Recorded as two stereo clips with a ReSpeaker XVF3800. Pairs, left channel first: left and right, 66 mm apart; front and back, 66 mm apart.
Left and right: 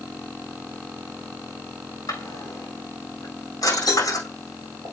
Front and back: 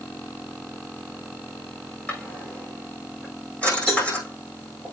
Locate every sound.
2.1 s a drawer: 75° left, 6.5 m
3.9 s a cowbell: 95° left, 6 m